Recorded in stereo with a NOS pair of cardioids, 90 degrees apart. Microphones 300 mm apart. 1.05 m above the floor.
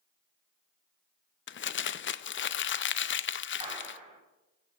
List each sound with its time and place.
1.5 s crumpling: 40° left, 0.6 m
3.6 s a clap: 15° right, 5 m